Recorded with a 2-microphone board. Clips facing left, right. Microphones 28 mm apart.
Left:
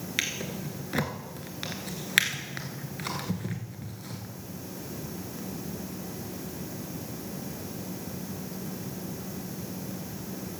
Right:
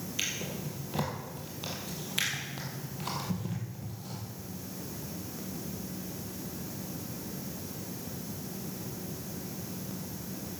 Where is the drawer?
80° left, 2 m.